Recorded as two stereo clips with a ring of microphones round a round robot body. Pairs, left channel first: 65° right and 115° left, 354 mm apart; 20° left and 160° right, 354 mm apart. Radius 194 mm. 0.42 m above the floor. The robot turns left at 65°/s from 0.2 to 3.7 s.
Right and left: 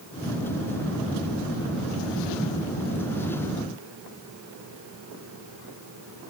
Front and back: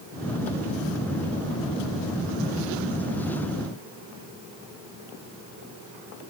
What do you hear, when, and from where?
Only background noise.